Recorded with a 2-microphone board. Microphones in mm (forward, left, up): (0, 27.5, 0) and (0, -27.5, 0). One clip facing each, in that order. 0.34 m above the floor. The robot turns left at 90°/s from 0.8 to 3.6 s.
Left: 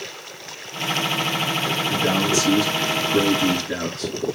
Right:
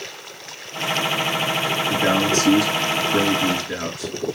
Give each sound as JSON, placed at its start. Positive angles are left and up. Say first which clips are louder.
{"t": 1.9, "sound": "a man speaking", "louder": "right 2 dB", "azimuth_deg": -10, "distance_m": 5.5}